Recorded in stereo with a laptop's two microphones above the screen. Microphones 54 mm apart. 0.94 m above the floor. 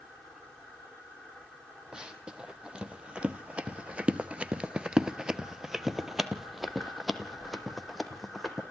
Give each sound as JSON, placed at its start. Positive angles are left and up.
{"t": 1.9, "sound": "running footsteps", "side_deg": -15, "distance_m": 2.0}